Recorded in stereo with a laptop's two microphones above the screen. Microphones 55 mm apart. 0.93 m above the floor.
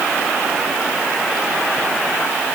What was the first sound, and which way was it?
Only background noise.